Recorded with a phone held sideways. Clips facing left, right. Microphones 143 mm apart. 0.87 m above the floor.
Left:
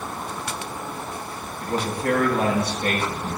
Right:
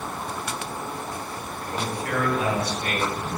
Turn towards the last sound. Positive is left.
turn(degrees=55)  # may be behind; listen again after turning